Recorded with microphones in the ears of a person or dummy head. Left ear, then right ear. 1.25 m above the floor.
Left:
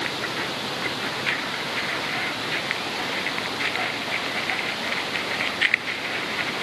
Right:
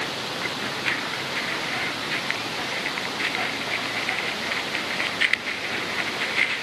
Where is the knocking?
I don't hear knocking.